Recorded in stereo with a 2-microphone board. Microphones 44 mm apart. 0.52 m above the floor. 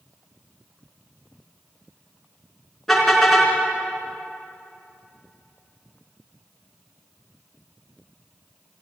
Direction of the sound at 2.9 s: 5° left (ahead or behind).